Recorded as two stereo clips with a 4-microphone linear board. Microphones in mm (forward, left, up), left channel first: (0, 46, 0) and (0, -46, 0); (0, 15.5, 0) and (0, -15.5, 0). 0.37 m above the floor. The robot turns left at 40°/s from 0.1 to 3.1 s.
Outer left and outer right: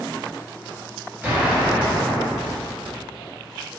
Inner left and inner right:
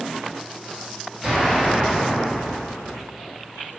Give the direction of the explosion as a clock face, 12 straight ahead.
5 o'clock.